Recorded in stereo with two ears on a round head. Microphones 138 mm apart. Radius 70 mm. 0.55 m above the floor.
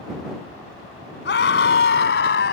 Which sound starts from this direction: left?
A scream, at 1.2 s.